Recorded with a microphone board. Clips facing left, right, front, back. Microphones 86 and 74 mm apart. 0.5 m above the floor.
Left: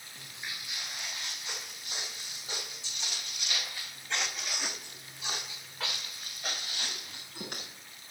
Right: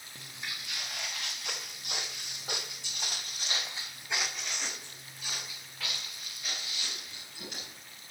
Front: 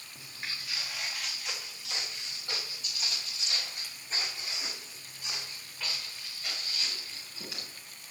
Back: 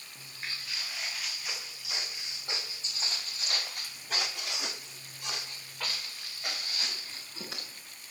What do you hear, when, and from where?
0.1 s footsteps: 85° right, 3 m; by 7.7 s 135° left, 3.5 m